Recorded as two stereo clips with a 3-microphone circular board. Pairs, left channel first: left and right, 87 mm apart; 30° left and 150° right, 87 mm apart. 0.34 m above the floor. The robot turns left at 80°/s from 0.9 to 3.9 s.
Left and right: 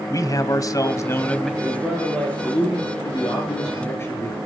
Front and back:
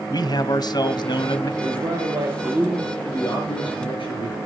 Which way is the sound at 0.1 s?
50° left.